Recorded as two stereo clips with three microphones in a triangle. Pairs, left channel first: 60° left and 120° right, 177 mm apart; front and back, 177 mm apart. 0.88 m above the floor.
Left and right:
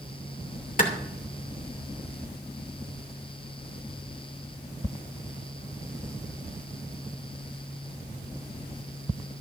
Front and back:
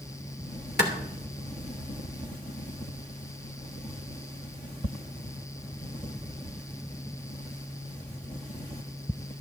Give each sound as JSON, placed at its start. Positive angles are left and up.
{"t": 0.8, "sound": "a clap", "azimuth_deg": 20, "distance_m": 2.5}